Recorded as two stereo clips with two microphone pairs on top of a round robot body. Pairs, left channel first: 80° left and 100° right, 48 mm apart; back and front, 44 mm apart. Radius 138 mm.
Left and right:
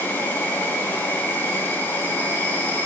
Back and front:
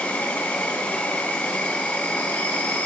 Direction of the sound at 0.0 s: 130° left.